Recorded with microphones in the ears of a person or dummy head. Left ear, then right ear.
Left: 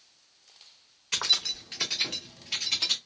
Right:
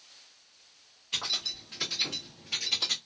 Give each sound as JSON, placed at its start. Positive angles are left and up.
{"t": 1.1, "sound": "keys jangling", "side_deg": 55, "distance_m": 0.8}